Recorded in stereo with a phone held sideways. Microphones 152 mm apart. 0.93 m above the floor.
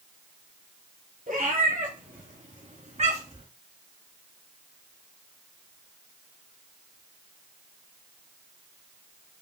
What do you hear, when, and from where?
1.3 s a cat meowing: 70° right (ahead or behind), 2 m; by 3.5 s 45° right (ahead or behind), 1.2 m